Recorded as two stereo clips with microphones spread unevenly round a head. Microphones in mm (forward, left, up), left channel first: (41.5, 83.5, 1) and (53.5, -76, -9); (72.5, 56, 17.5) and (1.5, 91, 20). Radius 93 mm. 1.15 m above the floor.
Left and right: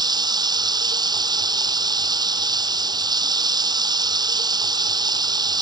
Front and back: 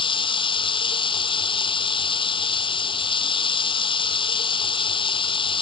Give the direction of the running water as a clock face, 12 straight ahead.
1 o'clock.